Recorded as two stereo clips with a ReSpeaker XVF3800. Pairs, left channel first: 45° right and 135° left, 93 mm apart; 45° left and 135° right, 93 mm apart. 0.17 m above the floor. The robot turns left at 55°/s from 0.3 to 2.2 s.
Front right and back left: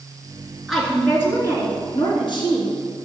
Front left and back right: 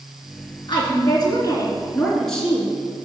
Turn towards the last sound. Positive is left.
turn(degrees=-40)